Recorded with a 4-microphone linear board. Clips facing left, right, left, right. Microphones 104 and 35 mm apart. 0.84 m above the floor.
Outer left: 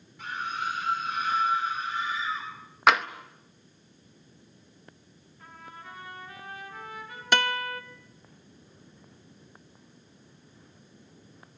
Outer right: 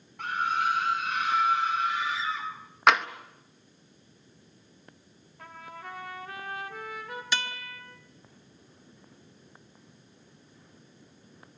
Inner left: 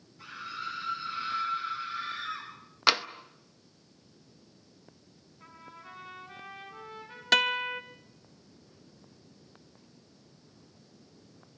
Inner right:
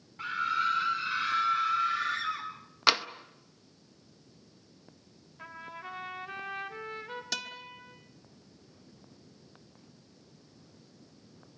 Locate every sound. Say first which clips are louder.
0.2 s a scream: outer right 5 dB, inner right 10 dB; 60° right (ahead or behind), 2.5 m; by 2.5 s 85° right, 5 m
2.9 s tapping: even, even; centre (ahead or behind), 0.7 m
5.4 s a trumpet: outer right 3 dB, inner right 6 dB; 75° right (ahead or behind), 3 m
7.3 s a guitar: outer left 10 dB, inner left 18 dB; 55° left (ahead or behind), 1.2 m